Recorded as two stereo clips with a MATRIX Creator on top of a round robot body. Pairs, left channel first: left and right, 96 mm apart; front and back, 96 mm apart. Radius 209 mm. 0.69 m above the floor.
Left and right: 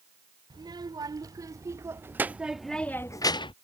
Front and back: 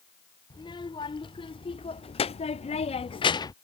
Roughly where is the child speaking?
Ahead right.